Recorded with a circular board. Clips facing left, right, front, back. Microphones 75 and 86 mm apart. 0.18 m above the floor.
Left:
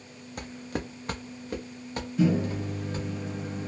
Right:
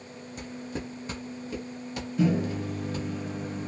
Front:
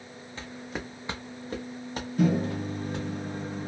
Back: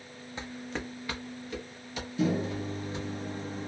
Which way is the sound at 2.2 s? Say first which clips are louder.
Left 1 dB, front 3 dB; 5° left.